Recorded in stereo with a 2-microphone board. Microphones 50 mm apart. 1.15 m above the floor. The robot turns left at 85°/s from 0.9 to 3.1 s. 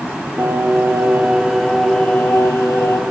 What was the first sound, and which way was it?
Singing, 125° right.